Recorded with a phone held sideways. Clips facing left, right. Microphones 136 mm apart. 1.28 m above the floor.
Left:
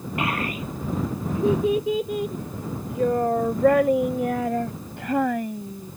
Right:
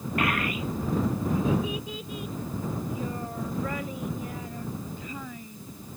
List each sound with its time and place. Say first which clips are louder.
0.2 s a child speaking: left 1 dB; 20° left (ahead or behind); by 5.9 s 80° left